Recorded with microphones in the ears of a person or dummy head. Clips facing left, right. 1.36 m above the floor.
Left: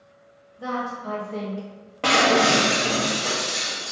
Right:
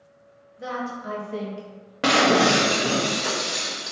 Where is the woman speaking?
25° right (ahead or behind), 1.3 m; by 1.7 s centre (ahead or behind), 0.6 m.